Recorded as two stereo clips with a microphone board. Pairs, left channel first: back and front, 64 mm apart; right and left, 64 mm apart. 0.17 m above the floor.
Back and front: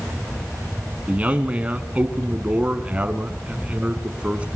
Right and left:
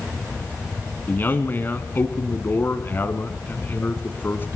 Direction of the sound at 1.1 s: 60° right.